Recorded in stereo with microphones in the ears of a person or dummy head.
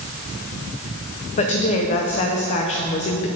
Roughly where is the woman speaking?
Left.